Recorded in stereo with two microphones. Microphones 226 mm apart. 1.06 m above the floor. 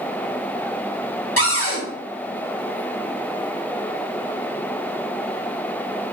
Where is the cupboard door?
80° left, 2.5 m.